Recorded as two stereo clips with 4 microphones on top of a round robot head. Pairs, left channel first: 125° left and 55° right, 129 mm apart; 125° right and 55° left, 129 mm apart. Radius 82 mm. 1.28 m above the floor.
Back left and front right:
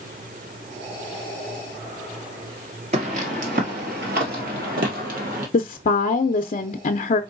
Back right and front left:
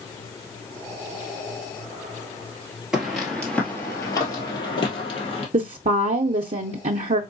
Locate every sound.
2.9 s footsteps: 25° right, 1.7 m; by 5.4 s 80° right, 2.5 m
5.5 s a woman speaking: 90° left, 0.6 m